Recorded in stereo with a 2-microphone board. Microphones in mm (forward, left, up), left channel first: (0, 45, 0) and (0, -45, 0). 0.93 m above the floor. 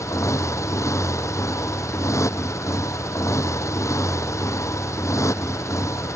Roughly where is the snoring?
I don't hear snoring.